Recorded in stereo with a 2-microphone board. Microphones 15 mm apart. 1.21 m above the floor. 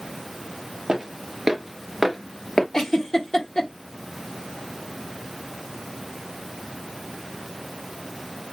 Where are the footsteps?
50° right (ahead or behind), 1.8 m; by 2.6 s 40° left (ahead or behind), 1.6 m.